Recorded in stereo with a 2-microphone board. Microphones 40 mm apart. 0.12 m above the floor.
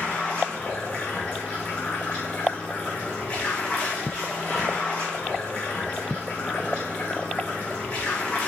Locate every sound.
0.0 s running water: 45° left (ahead or behind), 3.5 m